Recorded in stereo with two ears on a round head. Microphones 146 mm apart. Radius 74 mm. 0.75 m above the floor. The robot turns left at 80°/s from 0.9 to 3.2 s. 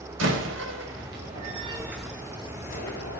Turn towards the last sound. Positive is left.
turn(degrees=85)